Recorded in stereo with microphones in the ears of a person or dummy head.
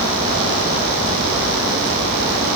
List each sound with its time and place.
Only background noise.